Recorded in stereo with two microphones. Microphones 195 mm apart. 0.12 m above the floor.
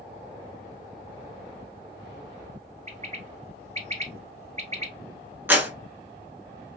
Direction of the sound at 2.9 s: 35° right (ahead or behind).